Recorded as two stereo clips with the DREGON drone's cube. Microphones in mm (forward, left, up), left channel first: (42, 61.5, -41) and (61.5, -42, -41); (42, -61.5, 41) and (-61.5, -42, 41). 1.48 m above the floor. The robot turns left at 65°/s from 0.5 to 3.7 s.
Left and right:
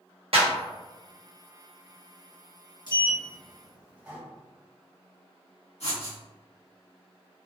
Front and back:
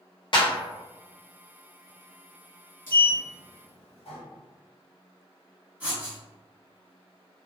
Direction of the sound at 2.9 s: 55° left.